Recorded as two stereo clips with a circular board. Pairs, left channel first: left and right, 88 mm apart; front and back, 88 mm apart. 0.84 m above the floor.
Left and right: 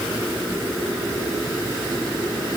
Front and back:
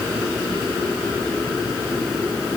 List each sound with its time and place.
Only background noise.